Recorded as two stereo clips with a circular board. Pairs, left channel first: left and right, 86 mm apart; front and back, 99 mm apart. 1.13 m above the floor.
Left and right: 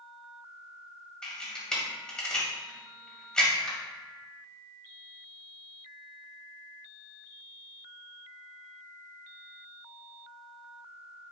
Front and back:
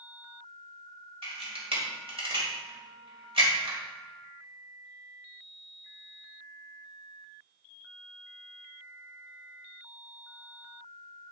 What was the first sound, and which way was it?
A camera shutter, 170° left.